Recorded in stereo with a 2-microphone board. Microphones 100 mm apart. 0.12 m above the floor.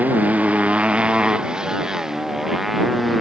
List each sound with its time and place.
0.0 s a motorcycle: 15° right (ahead or behind); by 3.2 s centre (ahead or behind)